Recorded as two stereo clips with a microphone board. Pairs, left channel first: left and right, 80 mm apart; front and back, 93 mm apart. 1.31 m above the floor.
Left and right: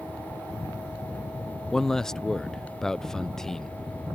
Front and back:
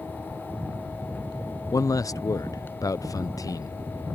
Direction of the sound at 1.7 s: 10° left.